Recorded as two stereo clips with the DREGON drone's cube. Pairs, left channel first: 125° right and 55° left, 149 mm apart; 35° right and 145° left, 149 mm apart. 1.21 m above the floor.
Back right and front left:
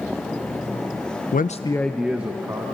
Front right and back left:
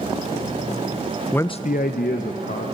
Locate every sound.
1.3 s a man speaking: 115° right, 0.5 m; by 2.6 s 15° right, 1.7 m